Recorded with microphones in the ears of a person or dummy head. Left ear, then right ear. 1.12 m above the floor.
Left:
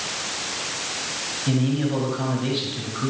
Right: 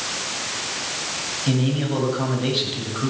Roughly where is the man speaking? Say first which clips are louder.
Left 1 dB; centre.